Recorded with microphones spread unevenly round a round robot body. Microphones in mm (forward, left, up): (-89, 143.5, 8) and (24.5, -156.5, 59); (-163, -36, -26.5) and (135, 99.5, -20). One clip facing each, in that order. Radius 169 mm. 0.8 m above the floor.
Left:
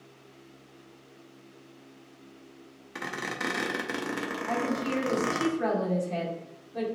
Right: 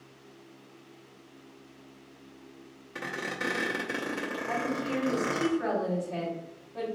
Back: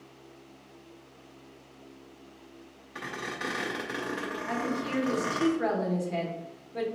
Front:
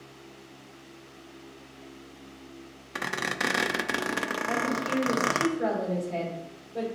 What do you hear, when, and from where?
3.0 s a squeak: 40° left, 0.5 m
4.5 s a woman speaking: 145° left, 2.5 m